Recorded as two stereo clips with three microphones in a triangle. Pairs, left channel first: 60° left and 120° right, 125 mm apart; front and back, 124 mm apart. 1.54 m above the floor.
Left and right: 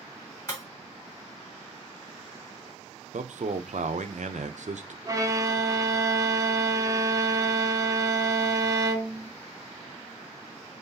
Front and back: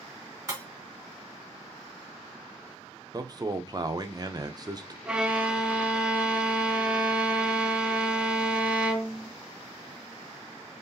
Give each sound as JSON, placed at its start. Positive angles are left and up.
{"t": 0.5, "sound": "breaking glass", "azimuth_deg": 115, "distance_m": 2.5}
{"t": 3.1, "sound": "a man speaking", "azimuth_deg": -125, "distance_m": 0.6}
{"t": 5.0, "sound": "a violin", "azimuth_deg": -105, "distance_m": 0.6}